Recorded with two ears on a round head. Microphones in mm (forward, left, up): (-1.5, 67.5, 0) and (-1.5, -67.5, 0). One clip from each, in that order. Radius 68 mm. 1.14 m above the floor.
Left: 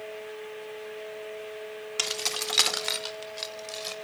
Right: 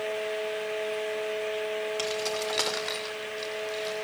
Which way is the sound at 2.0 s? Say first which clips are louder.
Even; 50° left (ahead or behind).